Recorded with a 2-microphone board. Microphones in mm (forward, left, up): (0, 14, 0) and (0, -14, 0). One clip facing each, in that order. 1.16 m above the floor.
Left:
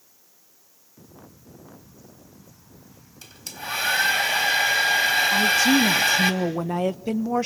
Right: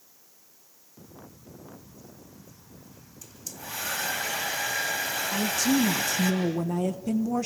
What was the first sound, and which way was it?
A hair dryer, 65° left (ahead or behind).